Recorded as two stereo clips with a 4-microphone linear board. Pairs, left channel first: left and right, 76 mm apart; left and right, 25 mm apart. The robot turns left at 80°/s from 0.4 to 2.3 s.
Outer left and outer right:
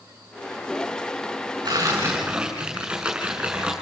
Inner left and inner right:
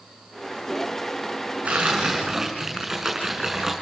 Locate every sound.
1.6 s tearing paper: 115° right, 6.5 m; by 3.7 s 170° right, 6.5 m